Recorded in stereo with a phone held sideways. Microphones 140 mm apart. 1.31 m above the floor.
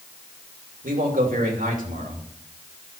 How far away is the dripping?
No dripping in this recording.